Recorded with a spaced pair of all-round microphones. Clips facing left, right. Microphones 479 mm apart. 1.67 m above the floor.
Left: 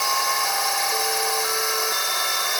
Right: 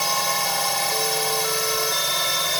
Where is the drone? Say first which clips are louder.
Right 1 dB; 55° right (ahead or behind).